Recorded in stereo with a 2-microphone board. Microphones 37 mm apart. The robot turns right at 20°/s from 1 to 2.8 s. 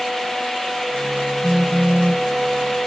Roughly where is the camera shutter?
No camera shutter in this recording.